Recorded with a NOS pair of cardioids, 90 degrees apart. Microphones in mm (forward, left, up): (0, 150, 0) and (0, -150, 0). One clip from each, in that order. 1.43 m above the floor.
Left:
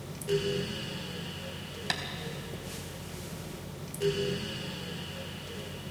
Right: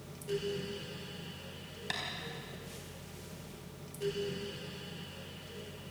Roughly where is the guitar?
No guitar in this recording.